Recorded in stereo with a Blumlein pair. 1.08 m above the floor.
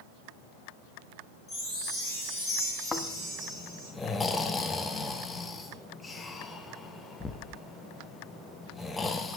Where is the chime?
10° left, 3.5 m.